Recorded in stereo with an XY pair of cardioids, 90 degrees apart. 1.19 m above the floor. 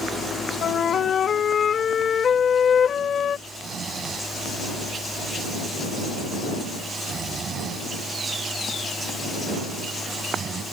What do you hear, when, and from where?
0.6 s a flute: 55° left
3.5 s snoring: 60° right